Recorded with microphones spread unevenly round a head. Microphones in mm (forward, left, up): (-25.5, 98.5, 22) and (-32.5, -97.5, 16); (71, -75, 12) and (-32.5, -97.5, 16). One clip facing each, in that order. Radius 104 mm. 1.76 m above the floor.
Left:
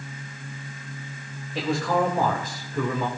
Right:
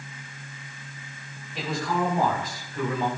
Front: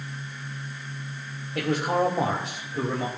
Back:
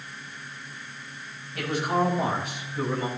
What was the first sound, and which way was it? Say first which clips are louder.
A man speaking: left 4 dB, front 1 dB; 55° left.